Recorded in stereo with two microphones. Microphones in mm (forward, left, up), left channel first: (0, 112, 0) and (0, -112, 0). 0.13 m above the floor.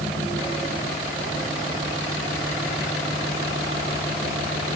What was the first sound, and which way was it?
Only background noise.